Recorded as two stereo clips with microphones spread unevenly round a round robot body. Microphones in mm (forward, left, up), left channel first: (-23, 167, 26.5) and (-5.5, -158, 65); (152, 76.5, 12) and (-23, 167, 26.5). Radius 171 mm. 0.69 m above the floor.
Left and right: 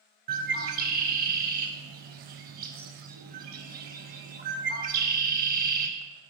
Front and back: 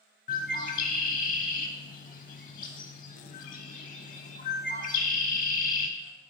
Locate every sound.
0.3 s a bird: 55° right, 0.6 m